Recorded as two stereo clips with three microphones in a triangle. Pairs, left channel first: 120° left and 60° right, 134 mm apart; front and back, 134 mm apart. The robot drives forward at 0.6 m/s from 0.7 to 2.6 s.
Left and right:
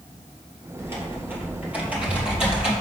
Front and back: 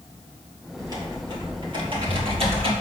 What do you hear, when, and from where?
0.8 s typing on a keyboard: 125° right, 2.5 m; by 2.7 s 145° right, 3.5 m